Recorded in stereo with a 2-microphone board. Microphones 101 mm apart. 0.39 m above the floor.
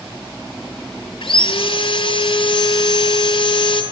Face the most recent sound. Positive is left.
turn(degrees=60)  # may be behind; listen again after turning